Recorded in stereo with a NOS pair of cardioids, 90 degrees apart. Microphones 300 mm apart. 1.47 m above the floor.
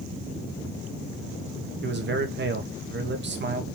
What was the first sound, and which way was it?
A man speaking, 40° right.